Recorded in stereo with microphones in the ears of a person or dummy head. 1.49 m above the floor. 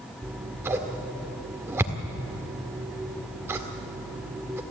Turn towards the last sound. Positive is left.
turn(degrees=-10)  # may be behind; listen again after turning